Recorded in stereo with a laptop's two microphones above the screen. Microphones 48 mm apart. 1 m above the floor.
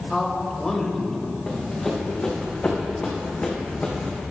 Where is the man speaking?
10° left (ahead or behind), 3.5 m; by 1.4 s 15° left (ahead or behind), 4 m.